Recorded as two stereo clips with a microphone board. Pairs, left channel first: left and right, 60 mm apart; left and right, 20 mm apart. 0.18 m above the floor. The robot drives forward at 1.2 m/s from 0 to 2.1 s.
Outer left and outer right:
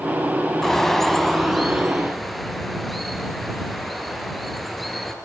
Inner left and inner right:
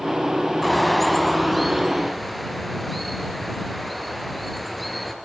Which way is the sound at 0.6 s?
5° left (ahead or behind).